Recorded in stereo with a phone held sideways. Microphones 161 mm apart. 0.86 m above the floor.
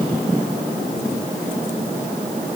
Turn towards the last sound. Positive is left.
No sound to turn to.